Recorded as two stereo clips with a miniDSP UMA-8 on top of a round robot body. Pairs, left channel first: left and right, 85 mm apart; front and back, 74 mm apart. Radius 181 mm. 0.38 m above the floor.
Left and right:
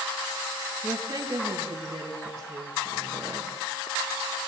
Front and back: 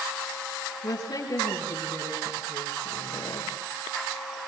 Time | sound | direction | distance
0.8 | a woman speaking | 35° right | 5 m